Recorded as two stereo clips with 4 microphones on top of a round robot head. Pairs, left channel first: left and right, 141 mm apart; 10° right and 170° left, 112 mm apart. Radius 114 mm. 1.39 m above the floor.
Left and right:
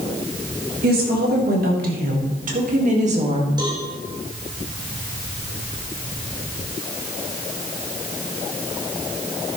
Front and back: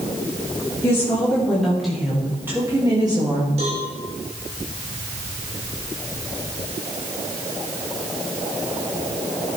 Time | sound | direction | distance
0.8 | a woman speaking | 80° right | 2.5 m
3.6 | a cowbell | 150° right | 2.5 m